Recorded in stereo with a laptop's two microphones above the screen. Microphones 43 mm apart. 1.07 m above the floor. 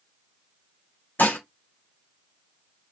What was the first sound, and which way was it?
Dishes clattering, 40° left (ahead or behind).